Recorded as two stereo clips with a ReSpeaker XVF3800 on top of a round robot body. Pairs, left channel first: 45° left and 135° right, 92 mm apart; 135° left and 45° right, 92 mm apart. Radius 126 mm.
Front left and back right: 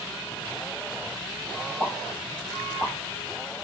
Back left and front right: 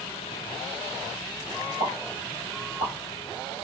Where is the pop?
50° right, 1.6 m.